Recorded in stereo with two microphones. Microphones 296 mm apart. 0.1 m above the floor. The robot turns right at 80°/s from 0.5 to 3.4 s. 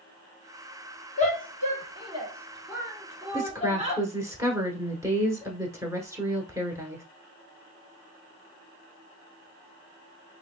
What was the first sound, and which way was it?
A shout, 25° left (ahead or behind).